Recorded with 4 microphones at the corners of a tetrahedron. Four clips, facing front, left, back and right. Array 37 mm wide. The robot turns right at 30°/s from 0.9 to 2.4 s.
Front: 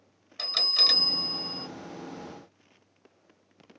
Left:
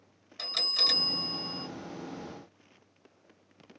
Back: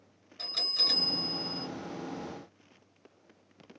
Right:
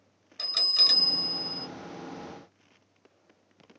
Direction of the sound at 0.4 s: Straight ahead.